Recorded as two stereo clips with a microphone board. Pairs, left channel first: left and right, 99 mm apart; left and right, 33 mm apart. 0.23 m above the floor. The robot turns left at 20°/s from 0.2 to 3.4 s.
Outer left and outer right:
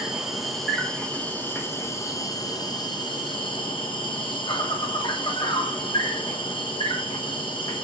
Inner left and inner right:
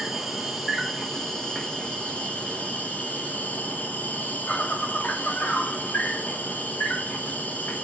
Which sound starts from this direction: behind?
An insect, at 0.0 s.